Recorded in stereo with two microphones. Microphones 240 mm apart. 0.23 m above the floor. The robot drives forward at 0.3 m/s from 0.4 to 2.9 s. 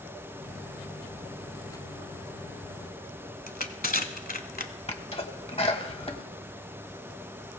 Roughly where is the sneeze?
Left.